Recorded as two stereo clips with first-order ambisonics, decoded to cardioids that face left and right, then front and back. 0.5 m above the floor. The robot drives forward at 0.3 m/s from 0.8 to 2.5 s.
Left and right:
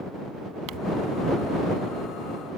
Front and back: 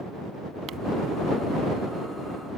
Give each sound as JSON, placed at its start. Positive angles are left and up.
{"t": 0.7, "sound": "crumpling", "azimuth_deg": -125}